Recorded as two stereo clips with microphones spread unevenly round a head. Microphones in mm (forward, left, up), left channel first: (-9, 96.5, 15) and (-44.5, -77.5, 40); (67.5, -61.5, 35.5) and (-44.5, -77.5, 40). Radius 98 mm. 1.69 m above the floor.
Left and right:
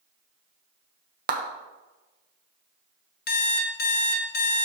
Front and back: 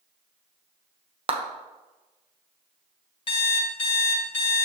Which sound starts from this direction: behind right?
A clap, at 1.3 s.